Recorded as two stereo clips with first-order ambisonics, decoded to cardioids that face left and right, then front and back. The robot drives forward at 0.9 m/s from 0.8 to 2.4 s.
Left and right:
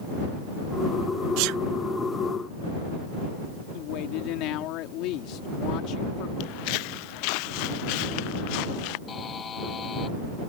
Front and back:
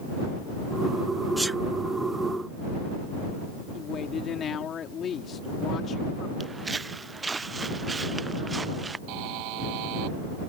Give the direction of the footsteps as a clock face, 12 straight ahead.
9 o'clock.